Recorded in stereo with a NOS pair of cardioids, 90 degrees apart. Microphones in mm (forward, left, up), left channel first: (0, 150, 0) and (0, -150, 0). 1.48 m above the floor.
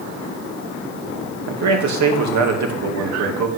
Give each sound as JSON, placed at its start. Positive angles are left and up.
{"t": 1.5, "sound": "a man speaking", "azimuth_deg": -65, "distance_m": 2.5}